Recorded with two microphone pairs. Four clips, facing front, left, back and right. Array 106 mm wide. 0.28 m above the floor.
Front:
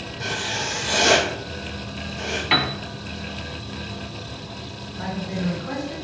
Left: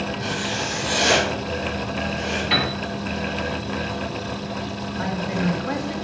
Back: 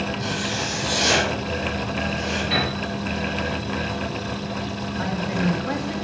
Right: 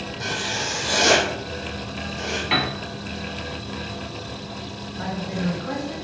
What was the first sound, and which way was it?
Writing, 60° right.